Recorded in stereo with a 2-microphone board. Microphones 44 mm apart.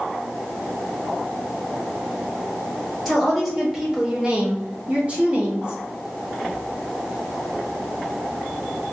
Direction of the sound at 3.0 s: Centre (ahead or behind).